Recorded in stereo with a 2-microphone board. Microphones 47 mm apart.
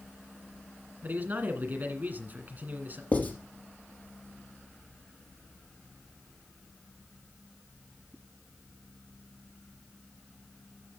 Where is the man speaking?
40° right (ahead or behind), 1.9 m.